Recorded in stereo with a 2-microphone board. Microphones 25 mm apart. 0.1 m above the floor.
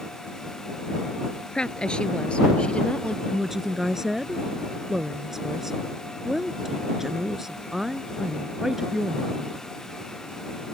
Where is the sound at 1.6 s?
35° left (ahead or behind); by 3.2 s 40° left (ahead or behind).